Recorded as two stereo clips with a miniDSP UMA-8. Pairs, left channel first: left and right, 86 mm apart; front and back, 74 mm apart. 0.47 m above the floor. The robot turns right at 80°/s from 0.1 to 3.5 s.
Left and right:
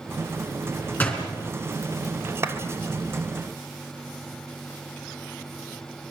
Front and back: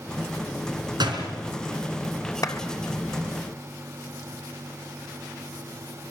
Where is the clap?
35° right, 1.4 m; by 2.6 s 20° right, 1.4 m.